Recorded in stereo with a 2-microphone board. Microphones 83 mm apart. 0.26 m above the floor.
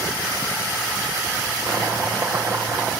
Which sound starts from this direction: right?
Chopping, at 1.7 s.